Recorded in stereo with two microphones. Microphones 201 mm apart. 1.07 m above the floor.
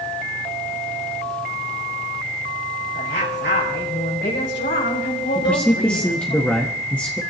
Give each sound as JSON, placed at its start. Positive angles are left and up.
{"t": 2.9, "sound": "a woman speaking", "side_deg": 75, "distance_m": 5.0}
{"t": 5.3, "sound": "a man speaking", "side_deg": 5, "distance_m": 1.4}